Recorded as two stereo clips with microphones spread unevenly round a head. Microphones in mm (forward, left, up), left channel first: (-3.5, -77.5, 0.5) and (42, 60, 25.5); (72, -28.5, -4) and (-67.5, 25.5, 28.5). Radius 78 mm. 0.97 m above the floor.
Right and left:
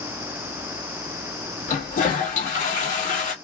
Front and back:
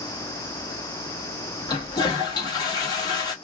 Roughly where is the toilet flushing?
Right.